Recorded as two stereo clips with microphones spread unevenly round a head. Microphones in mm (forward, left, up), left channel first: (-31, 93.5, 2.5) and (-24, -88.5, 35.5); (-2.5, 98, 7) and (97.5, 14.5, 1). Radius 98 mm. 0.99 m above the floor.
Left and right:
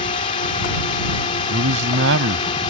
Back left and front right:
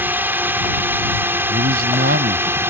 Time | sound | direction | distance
0.0 | a drone | 35° left | ?
1.5 | a man speaking | 65° right | ?